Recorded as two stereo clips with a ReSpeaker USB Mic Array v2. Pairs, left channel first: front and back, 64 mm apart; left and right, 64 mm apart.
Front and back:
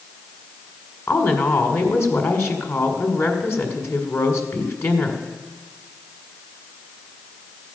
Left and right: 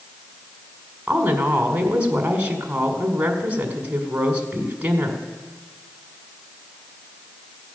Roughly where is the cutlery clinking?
I don't hear cutlery clinking.